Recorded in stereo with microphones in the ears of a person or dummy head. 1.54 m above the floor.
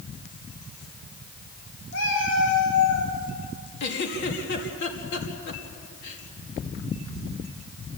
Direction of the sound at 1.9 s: 65° left (ahead or behind).